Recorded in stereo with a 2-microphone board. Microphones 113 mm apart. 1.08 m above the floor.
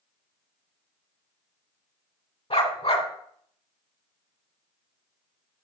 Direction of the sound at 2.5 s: 60° left (ahead or behind).